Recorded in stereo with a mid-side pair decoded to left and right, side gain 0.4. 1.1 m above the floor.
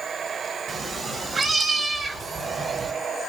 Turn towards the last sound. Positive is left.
turn(degrees=-40)